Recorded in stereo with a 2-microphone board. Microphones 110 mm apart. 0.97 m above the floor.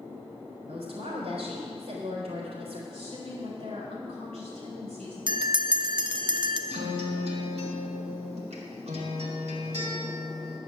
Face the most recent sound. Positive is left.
turn(degrees=-70)  # may be behind; listen again after turning